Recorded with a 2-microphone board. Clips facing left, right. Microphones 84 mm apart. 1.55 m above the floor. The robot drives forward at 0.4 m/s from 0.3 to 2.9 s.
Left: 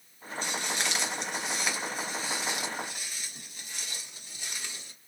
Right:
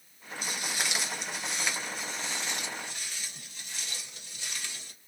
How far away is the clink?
I don't hear a clink.